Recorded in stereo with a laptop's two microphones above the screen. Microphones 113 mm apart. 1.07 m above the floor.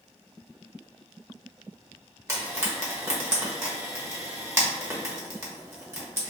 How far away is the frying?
About 1.3 m.